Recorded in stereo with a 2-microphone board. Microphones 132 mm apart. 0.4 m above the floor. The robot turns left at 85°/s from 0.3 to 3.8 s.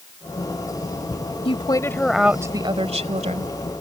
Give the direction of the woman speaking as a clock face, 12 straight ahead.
10 o'clock.